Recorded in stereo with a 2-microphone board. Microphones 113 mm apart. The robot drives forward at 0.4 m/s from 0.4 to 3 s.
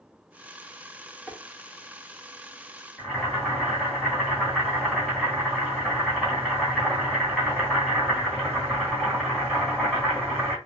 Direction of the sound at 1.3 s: 15° left (ahead or behind).